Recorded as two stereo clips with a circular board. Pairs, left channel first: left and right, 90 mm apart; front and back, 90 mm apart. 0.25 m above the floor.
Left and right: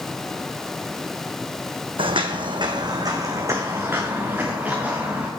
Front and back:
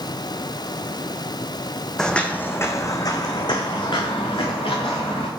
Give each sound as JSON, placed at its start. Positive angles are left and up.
{"t": 2.0, "sound": "footsteps", "azimuth_deg": -85, "distance_m": 0.8}